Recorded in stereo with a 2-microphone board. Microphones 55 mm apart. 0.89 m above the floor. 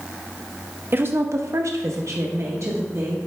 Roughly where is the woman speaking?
Right.